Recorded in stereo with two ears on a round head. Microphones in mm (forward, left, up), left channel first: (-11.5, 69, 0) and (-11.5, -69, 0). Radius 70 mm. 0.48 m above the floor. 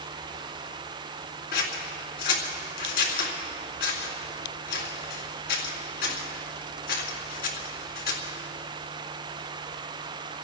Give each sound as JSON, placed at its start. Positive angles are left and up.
{"t": 1.5, "sound": "scissors", "side_deg": 70, "distance_m": 2.5}